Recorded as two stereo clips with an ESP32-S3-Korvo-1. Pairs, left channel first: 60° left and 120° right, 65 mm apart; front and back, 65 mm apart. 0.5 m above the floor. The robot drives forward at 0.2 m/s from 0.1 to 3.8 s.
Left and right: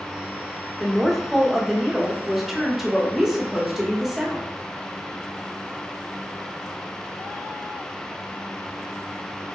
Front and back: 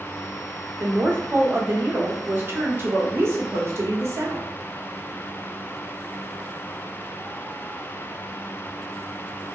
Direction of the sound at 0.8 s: 145° left.